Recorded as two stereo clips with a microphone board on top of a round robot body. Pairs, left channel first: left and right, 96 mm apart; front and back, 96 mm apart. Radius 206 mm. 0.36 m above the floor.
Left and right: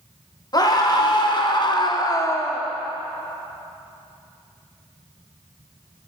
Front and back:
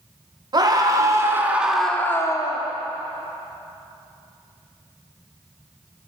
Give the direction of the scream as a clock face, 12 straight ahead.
7 o'clock.